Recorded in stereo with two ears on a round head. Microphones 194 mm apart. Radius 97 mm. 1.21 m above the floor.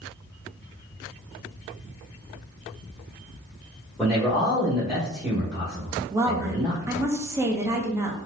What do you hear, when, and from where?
4.0 s a man speaking: 5° left (ahead or behind), 1.1 m
6.1 s a woman speaking: 15° right (ahead or behind), 0.6 m